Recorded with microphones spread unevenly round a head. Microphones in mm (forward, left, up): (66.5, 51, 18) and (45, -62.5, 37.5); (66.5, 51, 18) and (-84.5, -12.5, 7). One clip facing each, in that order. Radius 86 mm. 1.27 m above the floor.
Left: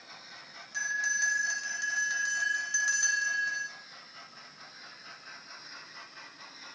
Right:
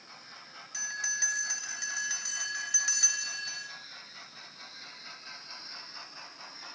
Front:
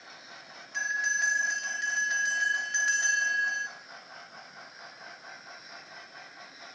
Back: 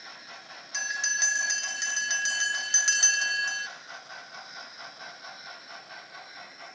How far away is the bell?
About 2.5 m.